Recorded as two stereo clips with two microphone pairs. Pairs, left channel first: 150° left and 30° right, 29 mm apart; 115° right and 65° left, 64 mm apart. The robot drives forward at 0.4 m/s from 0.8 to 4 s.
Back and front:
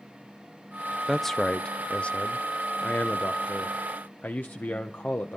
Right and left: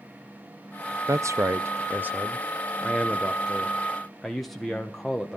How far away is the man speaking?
About 0.6 m.